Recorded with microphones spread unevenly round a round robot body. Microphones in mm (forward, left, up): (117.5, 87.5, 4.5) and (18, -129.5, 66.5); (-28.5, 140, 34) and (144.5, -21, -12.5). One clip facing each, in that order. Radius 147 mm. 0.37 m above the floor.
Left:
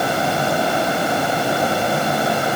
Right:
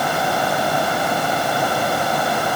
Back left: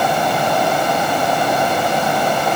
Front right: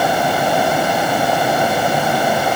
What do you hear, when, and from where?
Only background noise.